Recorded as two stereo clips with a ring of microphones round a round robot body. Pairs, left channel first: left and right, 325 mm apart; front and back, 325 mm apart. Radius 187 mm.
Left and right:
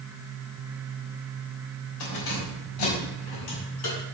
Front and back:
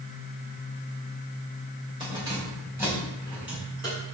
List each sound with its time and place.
2.0 s keys jangling: 100° left, 3 m; by 4.0 s 90° left, 6 m